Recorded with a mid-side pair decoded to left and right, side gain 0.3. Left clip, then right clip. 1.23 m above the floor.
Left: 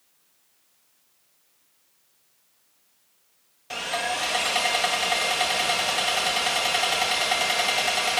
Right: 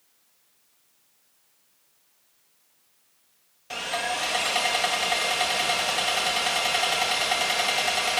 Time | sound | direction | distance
3.7 | sawing | 10° left | 2 m